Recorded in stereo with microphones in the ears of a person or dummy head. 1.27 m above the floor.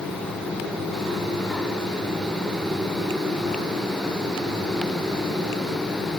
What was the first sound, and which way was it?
Only background noise.